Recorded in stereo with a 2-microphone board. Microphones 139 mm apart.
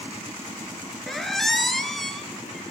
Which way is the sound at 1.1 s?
5° left (ahead or behind).